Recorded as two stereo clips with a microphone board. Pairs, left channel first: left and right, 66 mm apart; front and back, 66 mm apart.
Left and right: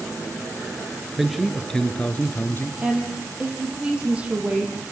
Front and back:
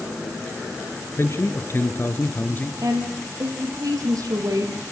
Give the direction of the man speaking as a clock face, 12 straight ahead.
12 o'clock.